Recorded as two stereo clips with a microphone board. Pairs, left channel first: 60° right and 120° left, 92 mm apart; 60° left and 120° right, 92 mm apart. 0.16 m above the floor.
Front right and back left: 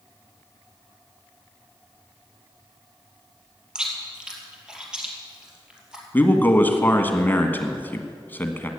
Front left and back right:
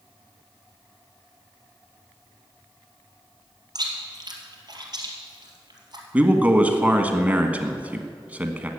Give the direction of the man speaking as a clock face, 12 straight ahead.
3 o'clock.